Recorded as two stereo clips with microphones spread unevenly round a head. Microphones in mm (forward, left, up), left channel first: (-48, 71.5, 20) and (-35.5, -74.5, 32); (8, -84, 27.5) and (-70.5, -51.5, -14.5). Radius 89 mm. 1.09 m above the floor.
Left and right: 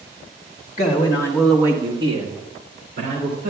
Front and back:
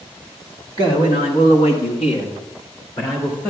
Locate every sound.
0.8 s a man speaking: 45° left, 1.8 m; by 3.5 s 60° right, 3.5 m